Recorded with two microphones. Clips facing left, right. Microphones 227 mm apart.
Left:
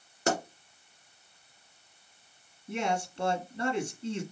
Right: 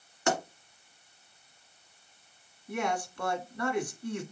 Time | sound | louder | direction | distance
0.3 | a pop | even | 35° left (ahead or behind) | 1.4 m
2.7 | a man speaking | left 1 dB | 25° left (ahead or behind) | 1.2 m